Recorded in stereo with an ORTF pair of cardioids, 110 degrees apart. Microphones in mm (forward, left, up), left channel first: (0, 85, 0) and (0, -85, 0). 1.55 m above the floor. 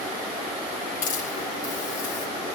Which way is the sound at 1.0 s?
50° left.